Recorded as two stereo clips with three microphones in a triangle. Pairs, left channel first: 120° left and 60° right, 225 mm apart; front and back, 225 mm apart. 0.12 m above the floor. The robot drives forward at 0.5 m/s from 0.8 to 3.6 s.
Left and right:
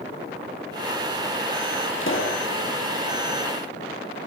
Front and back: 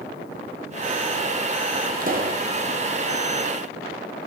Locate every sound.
2.0 s a pop: 135° left, 1.4 m; by 2.4 s 140° left, 1.5 m